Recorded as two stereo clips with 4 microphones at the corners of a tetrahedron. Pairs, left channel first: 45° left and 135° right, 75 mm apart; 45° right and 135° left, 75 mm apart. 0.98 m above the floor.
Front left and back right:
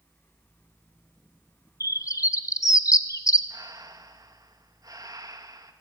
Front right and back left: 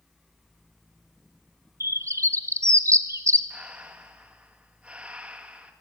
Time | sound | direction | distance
1.8 | a bird | 90° left | 1.0 m
3.5 | breathing | 155° right | 1.7 m